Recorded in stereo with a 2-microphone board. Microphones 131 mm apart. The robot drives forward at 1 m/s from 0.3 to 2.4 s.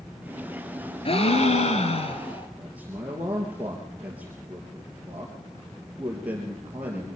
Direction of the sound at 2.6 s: 10° right (ahead or behind).